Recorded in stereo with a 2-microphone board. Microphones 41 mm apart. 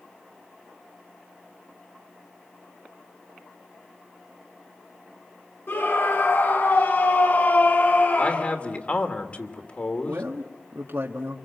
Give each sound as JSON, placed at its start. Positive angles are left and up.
{"t": 5.7, "sound": "a scream", "side_deg": 65, "distance_m": 3.5}
{"t": 8.2, "sound": "a man speaking", "side_deg": 35, "distance_m": 2.5}
{"t": 10.1, "sound": "a man speaking", "side_deg": -70, "distance_m": 1.9}